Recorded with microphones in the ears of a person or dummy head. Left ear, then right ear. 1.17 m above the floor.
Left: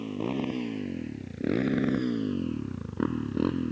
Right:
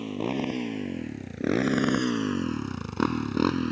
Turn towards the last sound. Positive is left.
turn(degrees=-65)  # may be behind; listen again after turning